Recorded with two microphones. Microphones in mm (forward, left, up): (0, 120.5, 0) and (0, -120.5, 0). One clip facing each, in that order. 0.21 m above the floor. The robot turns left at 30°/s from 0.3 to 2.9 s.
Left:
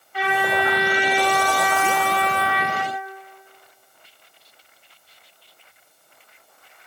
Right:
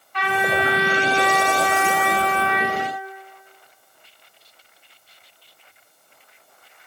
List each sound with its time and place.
0.1 s a trumpet: 170° left, 1.6 m; by 2.9 s 95° left, 1.6 m